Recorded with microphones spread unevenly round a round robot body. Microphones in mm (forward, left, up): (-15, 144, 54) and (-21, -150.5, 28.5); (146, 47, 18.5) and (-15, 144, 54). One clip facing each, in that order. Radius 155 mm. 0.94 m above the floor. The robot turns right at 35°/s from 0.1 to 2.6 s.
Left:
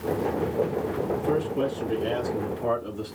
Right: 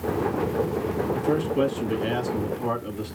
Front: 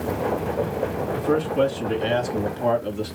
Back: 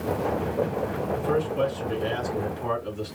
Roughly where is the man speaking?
Right.